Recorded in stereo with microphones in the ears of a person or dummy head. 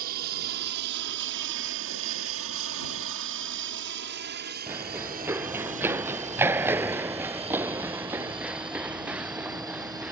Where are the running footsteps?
15° right (ahead or behind); by 10.1 s 10° right (ahead or behind).